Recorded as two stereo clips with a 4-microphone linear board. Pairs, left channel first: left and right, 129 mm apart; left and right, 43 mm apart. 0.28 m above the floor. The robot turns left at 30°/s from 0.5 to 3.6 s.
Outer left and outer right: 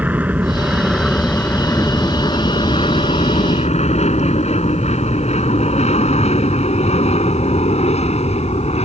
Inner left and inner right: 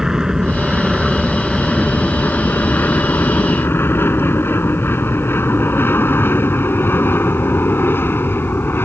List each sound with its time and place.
0.0 s an aircraft: 15° right (ahead or behind); by 8.9 s 60° left (ahead or behind)